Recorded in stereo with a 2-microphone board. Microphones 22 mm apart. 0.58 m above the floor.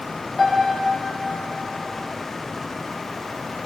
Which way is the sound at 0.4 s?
15° left (ahead or behind).